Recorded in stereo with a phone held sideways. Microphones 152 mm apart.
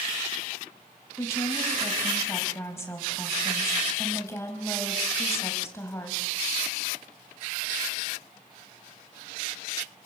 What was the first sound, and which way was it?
A woman speaking, 20° left (ahead or behind).